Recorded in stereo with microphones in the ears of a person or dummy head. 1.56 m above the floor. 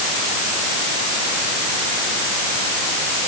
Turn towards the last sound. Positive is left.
No sound to turn to.